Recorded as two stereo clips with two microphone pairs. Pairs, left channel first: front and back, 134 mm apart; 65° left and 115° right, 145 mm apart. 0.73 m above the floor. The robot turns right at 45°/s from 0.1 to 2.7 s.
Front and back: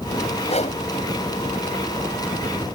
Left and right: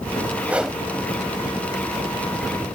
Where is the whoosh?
40° right; by 0.8 s 25° right.